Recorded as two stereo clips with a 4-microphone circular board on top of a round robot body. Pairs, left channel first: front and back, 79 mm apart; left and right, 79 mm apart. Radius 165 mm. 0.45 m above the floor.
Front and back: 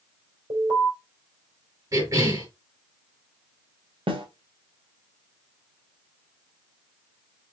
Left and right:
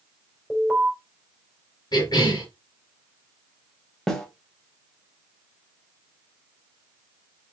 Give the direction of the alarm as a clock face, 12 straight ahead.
6 o'clock.